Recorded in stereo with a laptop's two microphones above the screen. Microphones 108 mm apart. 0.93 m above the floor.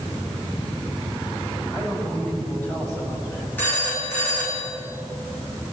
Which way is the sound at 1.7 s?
10° left (ahead or behind).